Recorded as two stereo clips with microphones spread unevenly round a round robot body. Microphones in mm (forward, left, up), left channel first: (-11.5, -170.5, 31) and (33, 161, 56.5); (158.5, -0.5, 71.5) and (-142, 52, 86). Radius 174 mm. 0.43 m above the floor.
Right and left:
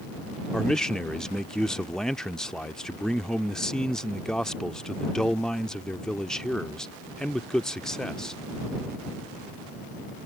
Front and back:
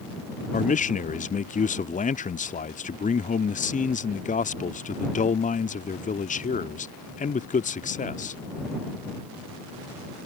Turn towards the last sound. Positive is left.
turn(degrees=-20)